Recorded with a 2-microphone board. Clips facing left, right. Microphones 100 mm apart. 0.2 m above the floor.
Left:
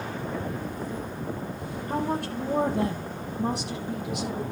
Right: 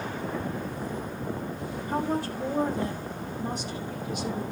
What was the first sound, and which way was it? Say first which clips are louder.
A woman speaking: even; 60° left (ahead or behind).